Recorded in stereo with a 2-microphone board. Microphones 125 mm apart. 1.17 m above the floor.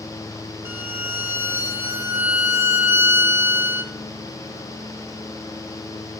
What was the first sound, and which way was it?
A violin, 20° right (ahead or behind).